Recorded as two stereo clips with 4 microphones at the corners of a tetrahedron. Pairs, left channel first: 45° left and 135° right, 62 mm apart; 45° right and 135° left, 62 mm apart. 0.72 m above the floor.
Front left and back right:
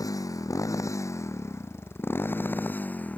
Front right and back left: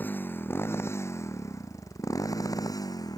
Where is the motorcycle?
15° left; by 3.2 s 25° right.